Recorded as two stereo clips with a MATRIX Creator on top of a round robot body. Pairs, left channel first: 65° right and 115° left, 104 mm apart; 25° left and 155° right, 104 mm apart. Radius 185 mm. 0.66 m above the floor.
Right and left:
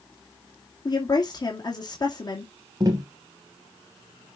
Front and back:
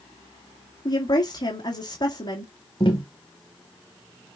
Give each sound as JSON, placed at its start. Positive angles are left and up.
{"t": 0.8, "sound": "a woman speaking", "azimuth_deg": -20, "distance_m": 2.5}
{"t": 2.8, "sound": "tapping", "azimuth_deg": 60, "distance_m": 0.5}